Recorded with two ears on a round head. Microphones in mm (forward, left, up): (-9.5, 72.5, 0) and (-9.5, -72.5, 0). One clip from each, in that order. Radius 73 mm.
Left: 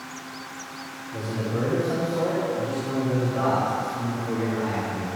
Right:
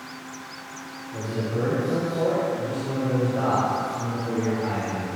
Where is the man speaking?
55° left (ahead or behind), 1.5 m; by 5.1 s 70° left (ahead or behind), 6 m.